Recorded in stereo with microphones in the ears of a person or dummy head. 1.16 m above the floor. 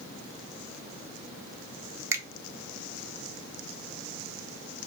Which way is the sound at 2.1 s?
10° right (ahead or behind).